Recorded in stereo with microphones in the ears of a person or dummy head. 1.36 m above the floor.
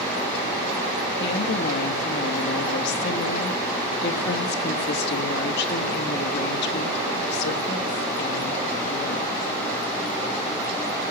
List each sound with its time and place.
1.2 s a woman speaking: 60° left (ahead or behind), 1.6 m